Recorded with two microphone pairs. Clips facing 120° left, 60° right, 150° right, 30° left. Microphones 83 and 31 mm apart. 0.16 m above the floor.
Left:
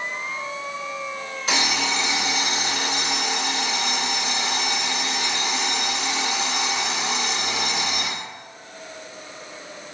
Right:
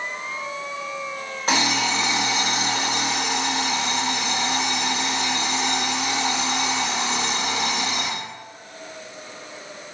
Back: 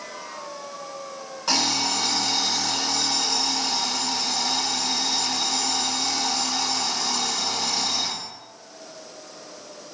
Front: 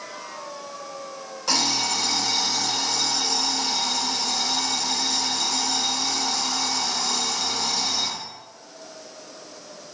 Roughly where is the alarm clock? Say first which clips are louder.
Right 3 dB, even; right.